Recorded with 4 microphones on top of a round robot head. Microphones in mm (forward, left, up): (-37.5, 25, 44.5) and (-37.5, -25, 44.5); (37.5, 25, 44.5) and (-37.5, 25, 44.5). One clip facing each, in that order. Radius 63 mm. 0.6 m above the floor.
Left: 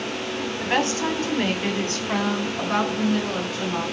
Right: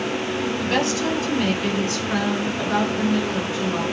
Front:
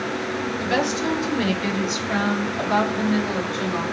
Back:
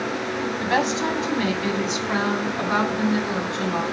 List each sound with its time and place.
0.6 s a woman speaking: 140° left, 2 m; by 3.8 s 115° left, 4 m